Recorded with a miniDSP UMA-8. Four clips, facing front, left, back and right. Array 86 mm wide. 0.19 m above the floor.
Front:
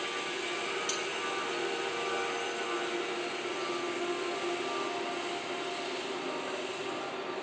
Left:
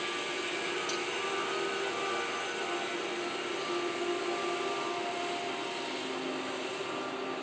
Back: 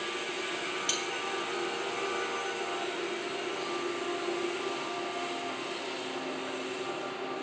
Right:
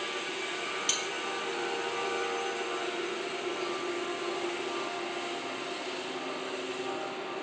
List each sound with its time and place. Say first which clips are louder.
0.9 s cutlery clinking: left 1 dB, even; 125° right